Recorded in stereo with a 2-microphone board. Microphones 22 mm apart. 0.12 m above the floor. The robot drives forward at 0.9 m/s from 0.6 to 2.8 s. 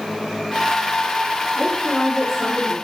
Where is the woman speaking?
Centre (ahead or behind), 4.5 m.